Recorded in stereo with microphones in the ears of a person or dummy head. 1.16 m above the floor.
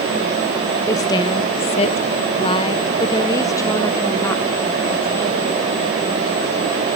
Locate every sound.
0.9 s a woman speaking: 15° left (ahead or behind), 0.7 m